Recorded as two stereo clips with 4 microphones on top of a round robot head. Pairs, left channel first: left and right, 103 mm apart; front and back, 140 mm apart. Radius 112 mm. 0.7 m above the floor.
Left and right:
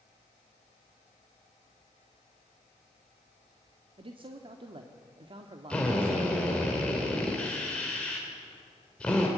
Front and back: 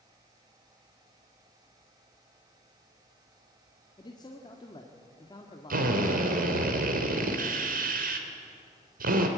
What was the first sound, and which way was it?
A man speaking, 60° right.